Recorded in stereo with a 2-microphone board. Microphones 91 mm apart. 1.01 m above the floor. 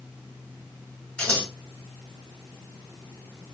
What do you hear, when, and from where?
1.2 s scissors: 15° left (ahead or behind), 6 m